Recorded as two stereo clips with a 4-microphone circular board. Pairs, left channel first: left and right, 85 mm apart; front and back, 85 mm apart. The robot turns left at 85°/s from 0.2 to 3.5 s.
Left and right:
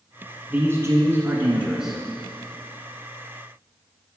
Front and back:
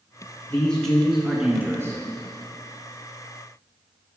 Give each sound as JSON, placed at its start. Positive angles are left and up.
{"t": 0.5, "sound": "a man speaking", "azimuth_deg": -50, "distance_m": 1.3}